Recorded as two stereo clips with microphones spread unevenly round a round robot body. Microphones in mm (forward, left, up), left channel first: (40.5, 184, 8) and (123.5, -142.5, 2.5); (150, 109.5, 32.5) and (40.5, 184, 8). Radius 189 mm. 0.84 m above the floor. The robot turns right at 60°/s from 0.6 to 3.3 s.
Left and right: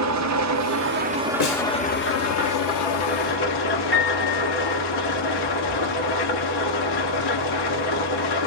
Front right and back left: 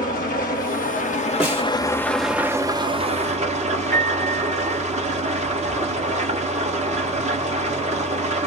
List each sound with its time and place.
0.0 s an engine running: 40° right, 1.3 m; by 8.5 s 125° left, 1.3 m
1.4 s a snare drum: 65° left, 2.5 m; by 1.6 s 80° left, 2.5 m
3.9 s a piano: 165° left, 2.5 m